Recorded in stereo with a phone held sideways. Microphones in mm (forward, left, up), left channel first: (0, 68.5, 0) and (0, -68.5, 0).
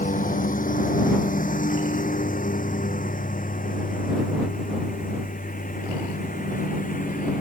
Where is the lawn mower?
75° left (ahead or behind); by 7.4 s 80° left.